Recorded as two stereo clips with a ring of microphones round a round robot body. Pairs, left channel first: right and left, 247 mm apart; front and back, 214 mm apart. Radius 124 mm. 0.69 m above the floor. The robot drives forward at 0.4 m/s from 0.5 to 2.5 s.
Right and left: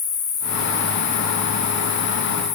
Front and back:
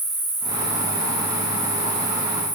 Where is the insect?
145° right, 5 m; by 2.6 s 150° right, 5.5 m.